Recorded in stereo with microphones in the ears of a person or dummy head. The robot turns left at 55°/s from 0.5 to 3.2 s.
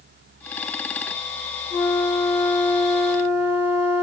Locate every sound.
1.7 s a flute: 75° left, 2.0 m; by 4.0 s 5° right, 2.0 m